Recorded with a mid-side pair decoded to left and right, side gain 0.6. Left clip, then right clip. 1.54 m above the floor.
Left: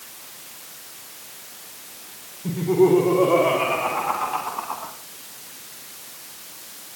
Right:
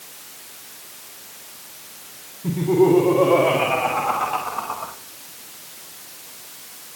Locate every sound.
2.4 s laughter: 25° right, 4 m; by 4.9 s 40° right, 2.5 m